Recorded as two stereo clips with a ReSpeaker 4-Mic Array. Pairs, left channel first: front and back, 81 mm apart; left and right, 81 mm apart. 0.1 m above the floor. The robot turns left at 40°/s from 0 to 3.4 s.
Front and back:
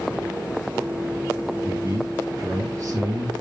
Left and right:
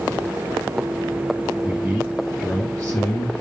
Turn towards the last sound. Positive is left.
turn(degrees=120)